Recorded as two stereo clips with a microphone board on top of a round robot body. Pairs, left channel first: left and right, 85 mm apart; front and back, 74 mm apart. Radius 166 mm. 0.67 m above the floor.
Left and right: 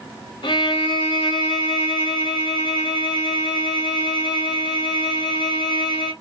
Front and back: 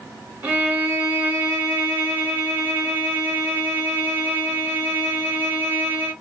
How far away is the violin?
About 0.6 m.